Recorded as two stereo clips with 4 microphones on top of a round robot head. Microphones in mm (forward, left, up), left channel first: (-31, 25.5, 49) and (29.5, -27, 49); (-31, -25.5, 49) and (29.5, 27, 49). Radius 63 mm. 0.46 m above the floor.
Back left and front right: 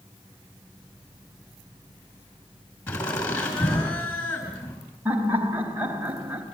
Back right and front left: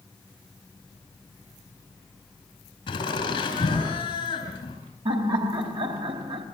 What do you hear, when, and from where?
2.9 s laughter: 170° right, 4.5 m
5.0 s laughter: 25° left, 3.5 m